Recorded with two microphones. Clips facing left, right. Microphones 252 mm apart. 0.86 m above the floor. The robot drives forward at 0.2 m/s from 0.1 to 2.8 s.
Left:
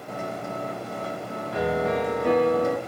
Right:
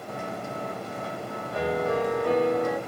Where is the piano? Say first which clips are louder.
Left 1 dB; 70° left (ahead or behind), 0.9 m.